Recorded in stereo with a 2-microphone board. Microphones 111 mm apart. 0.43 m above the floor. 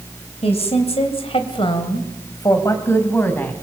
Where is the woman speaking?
65° left (ahead or behind), 3 m; by 3.5 s 15° left (ahead or behind), 3.5 m.